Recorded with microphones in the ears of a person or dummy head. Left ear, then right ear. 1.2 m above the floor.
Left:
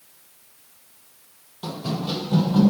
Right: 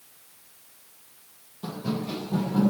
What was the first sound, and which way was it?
Running footsteps, 40° left (ahead or behind).